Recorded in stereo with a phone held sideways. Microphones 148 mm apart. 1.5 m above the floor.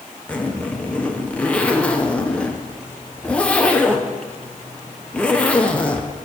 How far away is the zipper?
About 0.8 m.